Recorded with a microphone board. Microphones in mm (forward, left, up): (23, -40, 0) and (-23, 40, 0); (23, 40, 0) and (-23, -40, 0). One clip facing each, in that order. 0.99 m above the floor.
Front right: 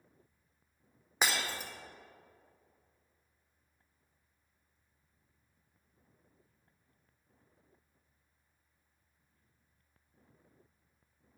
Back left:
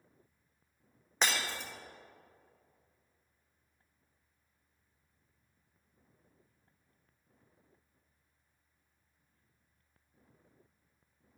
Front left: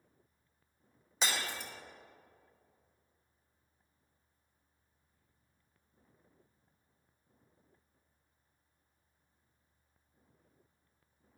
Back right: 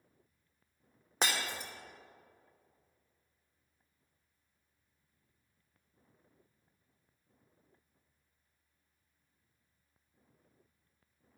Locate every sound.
1.2 s breaking glass: 140° right, 1.3 m